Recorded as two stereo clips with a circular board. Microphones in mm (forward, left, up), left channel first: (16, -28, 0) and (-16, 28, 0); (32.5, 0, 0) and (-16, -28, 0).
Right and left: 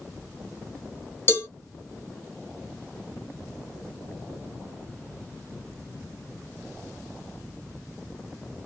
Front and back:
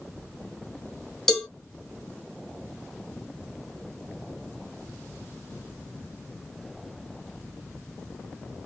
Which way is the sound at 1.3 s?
55° right.